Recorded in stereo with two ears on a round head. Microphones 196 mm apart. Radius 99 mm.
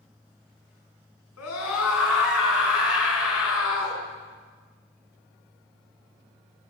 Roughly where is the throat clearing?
No throat clearing in this recording.